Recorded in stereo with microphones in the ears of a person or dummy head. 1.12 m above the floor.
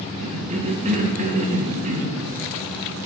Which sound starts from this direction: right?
A cough, at 0.2 s.